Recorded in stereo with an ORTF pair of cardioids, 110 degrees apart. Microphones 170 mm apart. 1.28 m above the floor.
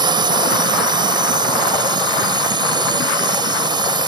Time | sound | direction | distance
0.0 | a drone | 25° right | ?